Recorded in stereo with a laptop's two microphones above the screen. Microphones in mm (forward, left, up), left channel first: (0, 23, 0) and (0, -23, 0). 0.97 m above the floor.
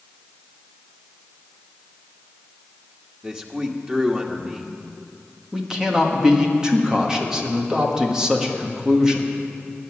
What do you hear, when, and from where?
3.2 s a man speaking: 15° right (ahead or behind), 1.7 m
5.5 s a man speaking: 15° right (ahead or behind), 1.6 m